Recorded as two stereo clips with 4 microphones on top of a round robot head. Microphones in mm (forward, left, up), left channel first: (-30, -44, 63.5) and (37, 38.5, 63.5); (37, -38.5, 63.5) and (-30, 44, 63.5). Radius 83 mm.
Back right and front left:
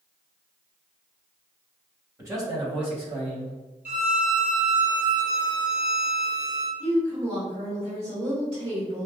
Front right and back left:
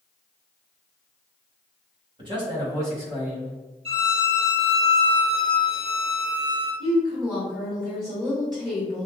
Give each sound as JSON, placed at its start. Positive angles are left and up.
{"t": 2.2, "sound": "a man speaking", "azimuth_deg": 105, "distance_m": 1.8}
{"t": 3.9, "sound": "a violin", "azimuth_deg": 125, "distance_m": 1.3}
{"t": 6.8, "sound": "a woman speaking", "azimuth_deg": 80, "distance_m": 2.0}